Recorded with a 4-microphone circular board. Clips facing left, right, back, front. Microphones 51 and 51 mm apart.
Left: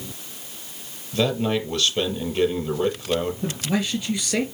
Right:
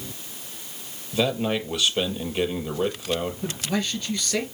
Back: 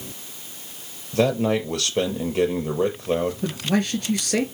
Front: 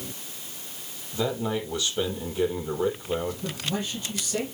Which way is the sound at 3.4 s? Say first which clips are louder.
Left 2 dB, back 7 dB; 165° left.